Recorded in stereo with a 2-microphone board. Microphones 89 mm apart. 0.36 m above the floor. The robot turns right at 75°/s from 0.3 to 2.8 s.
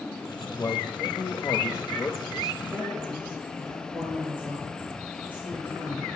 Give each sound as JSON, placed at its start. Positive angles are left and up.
{"t": 0.6, "sound": "a man speaking", "azimuth_deg": 45, "distance_m": 1.2}
{"t": 2.6, "sound": "a woman speaking", "side_deg": -25, "distance_m": 7.0}